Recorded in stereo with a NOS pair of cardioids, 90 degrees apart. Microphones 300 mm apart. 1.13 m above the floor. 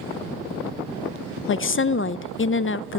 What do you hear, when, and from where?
1.5 s a woman speaking: 40° left, 0.5 m